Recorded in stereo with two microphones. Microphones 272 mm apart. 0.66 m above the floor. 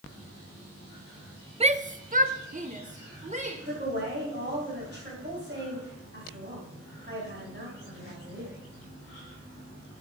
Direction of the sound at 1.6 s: 20° right (ahead or behind).